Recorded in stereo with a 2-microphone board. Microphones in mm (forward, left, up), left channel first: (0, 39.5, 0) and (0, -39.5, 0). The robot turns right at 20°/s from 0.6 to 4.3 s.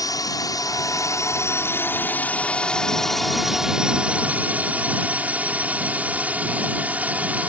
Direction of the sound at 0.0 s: 125° left.